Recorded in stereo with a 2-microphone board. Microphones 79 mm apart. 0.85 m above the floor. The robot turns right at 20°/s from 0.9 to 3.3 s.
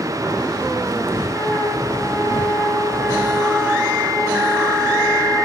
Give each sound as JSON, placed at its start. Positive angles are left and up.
{"t": 1.3, "sound": "a flute", "azimuth_deg": 135, "distance_m": 5.5}